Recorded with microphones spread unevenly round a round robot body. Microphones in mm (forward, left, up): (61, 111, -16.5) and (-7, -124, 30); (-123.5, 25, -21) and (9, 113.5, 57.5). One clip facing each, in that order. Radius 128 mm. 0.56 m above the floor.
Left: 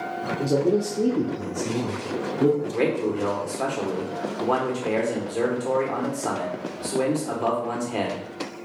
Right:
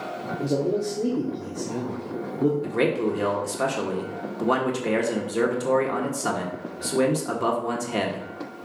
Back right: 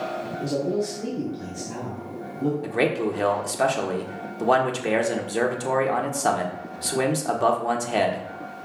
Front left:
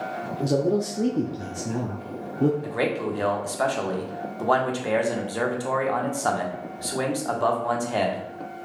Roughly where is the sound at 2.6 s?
Behind.